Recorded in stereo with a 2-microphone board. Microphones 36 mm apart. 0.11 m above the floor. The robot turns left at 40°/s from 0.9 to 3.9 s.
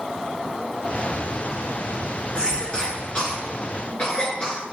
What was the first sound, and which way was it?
A cough, 25° left (ahead or behind).